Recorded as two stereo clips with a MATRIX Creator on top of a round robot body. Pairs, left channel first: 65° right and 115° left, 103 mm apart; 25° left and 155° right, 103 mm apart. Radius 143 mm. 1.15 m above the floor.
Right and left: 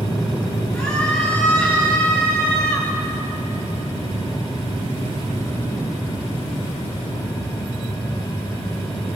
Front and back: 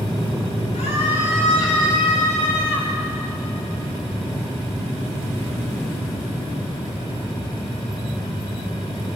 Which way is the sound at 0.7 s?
Straight ahead.